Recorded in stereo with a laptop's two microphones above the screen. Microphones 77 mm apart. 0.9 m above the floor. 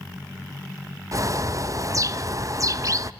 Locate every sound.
1.1 s a bird: 45° right (ahead or behind), 0.6 m